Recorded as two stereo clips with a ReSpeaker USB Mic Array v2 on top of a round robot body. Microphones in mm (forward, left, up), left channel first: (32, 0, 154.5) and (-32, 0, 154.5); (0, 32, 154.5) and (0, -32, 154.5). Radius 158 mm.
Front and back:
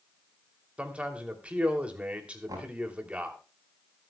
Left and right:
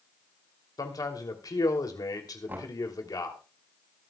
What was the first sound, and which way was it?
A man speaking, 110° left.